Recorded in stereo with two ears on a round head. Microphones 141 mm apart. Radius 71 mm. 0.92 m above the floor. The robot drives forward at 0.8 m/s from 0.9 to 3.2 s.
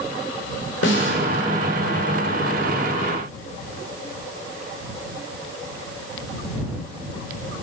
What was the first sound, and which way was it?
A snare drum, 80° left.